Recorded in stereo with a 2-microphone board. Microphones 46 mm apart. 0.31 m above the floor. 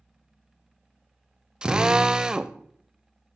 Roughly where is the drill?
Centre.